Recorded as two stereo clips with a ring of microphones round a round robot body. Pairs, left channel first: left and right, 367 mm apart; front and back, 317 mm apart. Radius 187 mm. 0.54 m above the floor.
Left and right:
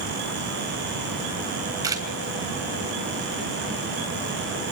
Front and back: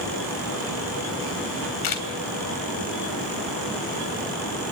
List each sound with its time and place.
1.8 s a camera shutter: 10° right, 3 m